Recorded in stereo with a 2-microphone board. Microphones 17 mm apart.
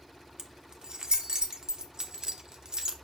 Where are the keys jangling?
60° right (ahead or behind), 1.2 m.